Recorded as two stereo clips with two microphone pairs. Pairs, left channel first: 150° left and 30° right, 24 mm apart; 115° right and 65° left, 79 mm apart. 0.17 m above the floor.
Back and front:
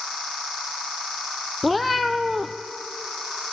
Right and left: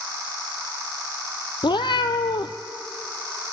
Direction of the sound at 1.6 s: 120° right.